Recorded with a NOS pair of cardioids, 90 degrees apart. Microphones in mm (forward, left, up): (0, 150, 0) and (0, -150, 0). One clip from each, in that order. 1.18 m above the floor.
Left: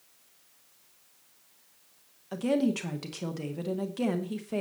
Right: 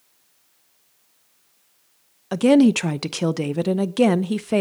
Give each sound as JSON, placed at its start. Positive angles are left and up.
{"t": 2.3, "sound": "a woman speaking", "azimuth_deg": -65, "distance_m": 0.7}